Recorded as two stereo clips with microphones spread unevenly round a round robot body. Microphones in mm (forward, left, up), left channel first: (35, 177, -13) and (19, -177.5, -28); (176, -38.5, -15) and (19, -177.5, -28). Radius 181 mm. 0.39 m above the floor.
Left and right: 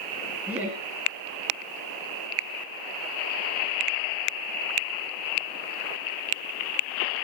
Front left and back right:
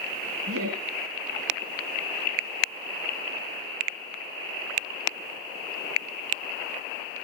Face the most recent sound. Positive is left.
turn(degrees=180)